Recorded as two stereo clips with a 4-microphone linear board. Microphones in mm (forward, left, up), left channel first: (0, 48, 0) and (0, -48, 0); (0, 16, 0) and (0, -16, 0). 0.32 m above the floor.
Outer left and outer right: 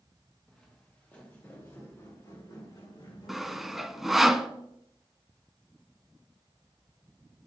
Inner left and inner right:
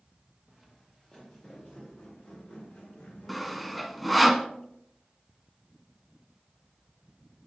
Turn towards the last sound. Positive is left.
turn(degrees=-5)  # may be behind; listen again after turning